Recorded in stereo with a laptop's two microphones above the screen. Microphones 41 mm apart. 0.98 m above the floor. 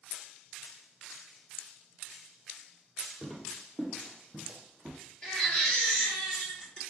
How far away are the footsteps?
About 1.4 m.